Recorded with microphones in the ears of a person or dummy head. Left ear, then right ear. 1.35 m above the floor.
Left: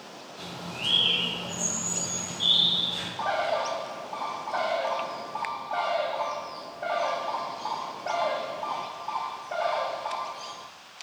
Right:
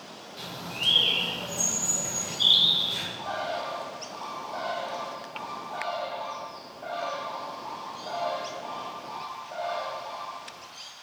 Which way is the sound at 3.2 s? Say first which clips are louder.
Left 5 dB; 35° left (ahead or behind).